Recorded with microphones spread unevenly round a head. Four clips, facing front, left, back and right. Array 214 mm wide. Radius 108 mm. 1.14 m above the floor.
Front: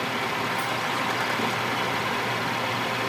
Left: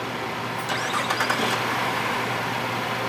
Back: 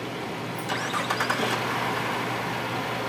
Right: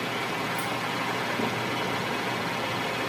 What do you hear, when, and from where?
0.6 s keys jangling: 150° right, 0.6 m